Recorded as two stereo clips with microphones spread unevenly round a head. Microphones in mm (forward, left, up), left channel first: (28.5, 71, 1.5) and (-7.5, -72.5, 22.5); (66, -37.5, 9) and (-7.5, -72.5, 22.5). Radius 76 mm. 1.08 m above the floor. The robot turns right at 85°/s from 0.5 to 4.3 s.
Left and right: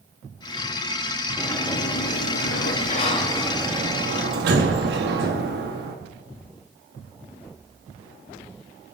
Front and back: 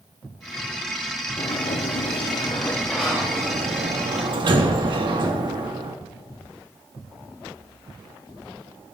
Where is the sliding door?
20° right, 2 m; by 6.0 s 130° right, 2 m.